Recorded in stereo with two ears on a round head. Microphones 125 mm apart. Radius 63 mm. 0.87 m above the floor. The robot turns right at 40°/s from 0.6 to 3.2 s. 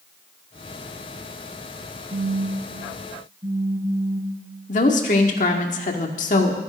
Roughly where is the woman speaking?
Left.